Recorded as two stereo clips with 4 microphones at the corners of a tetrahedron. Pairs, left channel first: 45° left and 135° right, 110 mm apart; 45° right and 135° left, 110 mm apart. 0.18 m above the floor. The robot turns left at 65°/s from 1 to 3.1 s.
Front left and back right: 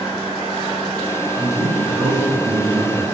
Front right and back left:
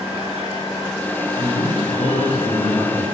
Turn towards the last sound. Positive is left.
turn(degrees=-155)